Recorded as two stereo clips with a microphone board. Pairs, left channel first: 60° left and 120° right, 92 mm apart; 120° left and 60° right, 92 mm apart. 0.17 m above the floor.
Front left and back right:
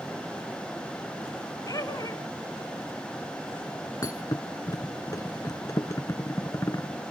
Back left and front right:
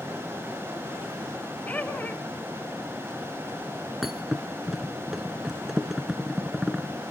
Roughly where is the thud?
Ahead left.